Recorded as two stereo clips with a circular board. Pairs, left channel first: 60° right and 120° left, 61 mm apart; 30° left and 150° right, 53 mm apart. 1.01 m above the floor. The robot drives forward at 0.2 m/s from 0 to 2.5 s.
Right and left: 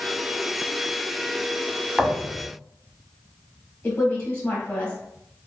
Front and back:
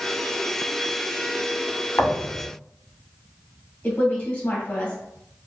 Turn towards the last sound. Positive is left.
turn(degrees=-20)